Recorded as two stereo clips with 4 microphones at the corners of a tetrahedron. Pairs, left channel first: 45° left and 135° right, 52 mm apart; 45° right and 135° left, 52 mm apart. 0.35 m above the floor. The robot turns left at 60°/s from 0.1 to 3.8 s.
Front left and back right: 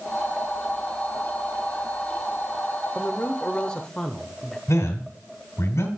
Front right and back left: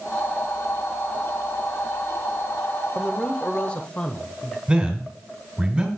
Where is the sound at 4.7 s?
60° left, 2.5 m.